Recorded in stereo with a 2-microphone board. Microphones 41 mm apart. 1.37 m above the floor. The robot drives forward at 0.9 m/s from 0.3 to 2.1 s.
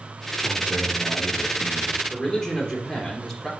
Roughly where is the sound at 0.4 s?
Right.